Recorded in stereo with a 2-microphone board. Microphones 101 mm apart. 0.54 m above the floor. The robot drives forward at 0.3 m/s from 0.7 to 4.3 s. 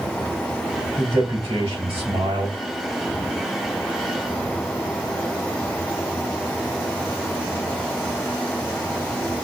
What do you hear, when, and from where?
1.0 s a man speaking: 75° right (ahead or behind), 2.5 m; by 2.6 s 70° right (ahead or behind), 2.5 m